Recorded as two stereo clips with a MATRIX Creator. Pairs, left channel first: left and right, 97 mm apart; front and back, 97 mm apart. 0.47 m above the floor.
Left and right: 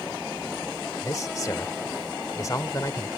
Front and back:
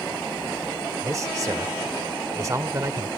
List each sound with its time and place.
1.0 s a man speaking: 135° left